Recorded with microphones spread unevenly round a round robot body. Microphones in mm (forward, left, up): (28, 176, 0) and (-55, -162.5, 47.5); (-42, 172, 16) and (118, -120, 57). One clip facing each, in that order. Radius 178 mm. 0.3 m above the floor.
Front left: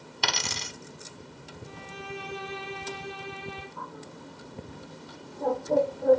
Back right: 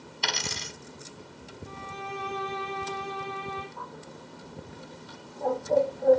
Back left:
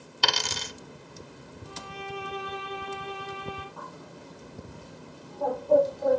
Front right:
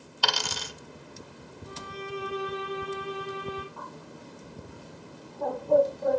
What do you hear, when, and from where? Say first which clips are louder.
0.2 s a dropped coin: front left 1 dB, back left 1 dB; 60° left, 1.3 m
1.6 s a violin: back right 1 dB, front right 2 dB; 5° left, 6 m
3.8 s a bird: front left 1 dB, even; straight ahead, 8 m